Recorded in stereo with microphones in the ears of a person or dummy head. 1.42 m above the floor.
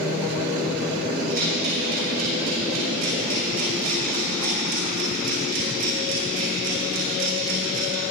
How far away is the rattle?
About 5.5 m.